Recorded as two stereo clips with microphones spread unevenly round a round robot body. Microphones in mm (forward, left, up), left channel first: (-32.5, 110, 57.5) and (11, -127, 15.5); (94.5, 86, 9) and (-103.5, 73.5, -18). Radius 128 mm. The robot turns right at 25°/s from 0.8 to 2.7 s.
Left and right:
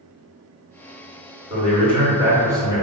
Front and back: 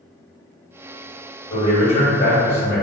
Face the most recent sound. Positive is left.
turn(degrees=-15)